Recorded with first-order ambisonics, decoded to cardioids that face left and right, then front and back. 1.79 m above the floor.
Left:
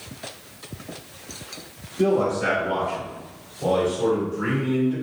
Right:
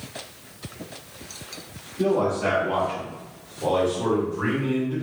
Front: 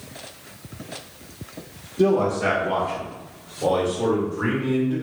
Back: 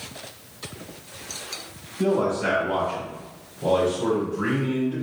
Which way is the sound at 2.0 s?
5° left.